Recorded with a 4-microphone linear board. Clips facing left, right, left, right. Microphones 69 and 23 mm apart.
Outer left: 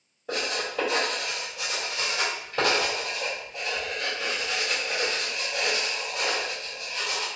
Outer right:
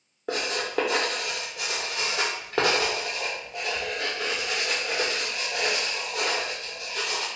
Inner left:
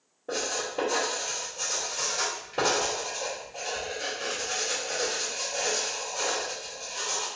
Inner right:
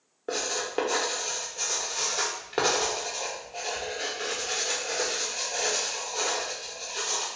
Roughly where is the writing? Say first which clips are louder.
Outer right 1 dB, inner right 1 dB; right.